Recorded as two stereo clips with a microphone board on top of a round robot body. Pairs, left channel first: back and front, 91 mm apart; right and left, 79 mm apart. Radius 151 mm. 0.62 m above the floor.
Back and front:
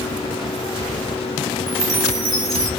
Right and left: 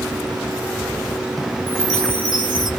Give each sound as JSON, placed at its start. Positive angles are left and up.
{"t": 1.7, "sound": "a chime", "azimuth_deg": 50, "distance_m": 1.9}